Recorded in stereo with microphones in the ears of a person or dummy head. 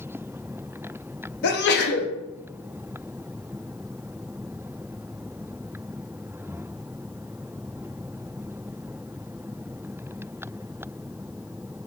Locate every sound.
1.4 s a sneeze: 50° left (ahead or behind), 0.6 m